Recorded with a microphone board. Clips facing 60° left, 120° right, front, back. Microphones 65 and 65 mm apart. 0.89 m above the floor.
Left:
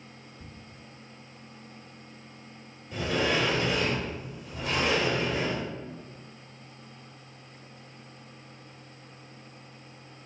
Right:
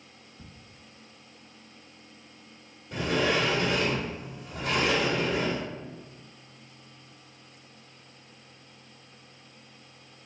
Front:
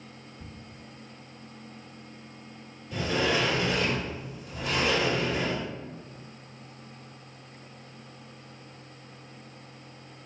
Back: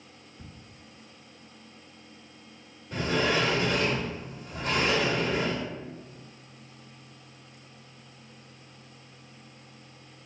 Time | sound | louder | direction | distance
0.4 | ticking | right 2 dB, front 1 dB | 150° right | 1.1 m
2.9 | a sliding door | right 1 dB, back 1 dB | 140° right | 1.4 m